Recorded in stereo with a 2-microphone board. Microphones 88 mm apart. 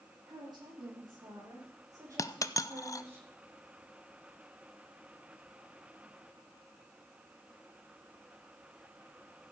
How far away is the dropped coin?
About 0.5 m.